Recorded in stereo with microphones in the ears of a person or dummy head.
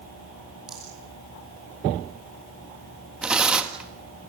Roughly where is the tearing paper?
Centre.